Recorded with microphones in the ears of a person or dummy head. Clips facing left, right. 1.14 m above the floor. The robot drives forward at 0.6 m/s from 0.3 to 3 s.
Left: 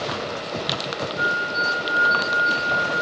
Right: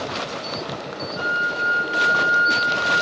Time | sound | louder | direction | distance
1.2 | a flute | left 1 dB | 70° right (ahead or behind) | 1.5 m